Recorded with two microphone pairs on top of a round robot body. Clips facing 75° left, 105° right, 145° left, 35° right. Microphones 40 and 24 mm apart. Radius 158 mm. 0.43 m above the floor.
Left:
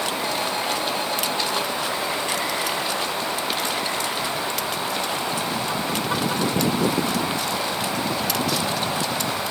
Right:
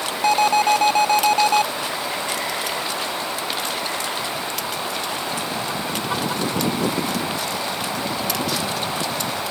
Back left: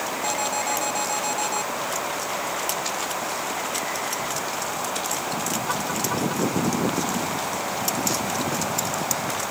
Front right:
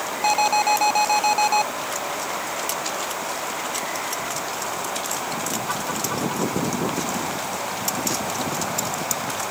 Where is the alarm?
85° right.